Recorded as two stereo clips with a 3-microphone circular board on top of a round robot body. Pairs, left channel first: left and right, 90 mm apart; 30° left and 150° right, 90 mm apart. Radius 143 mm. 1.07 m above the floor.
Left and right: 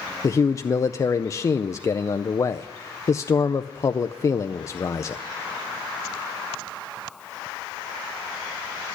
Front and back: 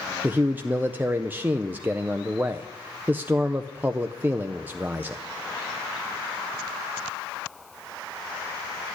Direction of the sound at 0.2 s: 140° left.